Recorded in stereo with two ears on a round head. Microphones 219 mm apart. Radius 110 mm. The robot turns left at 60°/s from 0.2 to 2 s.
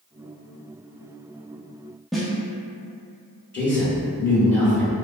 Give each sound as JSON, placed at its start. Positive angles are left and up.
{"t": 2.1, "sound": "a snare drum", "side_deg": 0, "distance_m": 0.6}
{"t": 3.5, "sound": "a man speaking", "side_deg": 10, "distance_m": 1.9}